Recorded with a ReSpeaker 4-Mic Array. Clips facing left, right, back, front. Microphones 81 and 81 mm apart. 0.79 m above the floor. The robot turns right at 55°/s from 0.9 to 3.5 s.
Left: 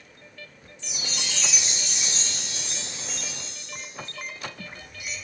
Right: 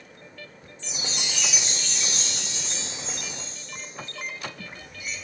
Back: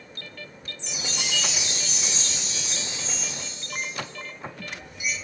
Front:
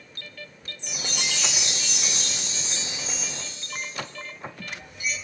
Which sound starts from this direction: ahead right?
A chime, at 0.8 s.